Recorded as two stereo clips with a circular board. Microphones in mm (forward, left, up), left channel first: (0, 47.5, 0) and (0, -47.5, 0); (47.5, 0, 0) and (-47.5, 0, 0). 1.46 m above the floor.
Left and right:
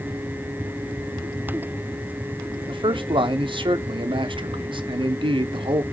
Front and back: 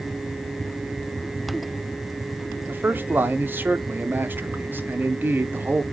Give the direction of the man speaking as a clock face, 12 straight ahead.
4 o'clock.